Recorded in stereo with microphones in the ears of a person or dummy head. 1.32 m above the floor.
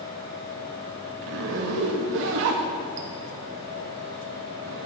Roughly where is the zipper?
Right.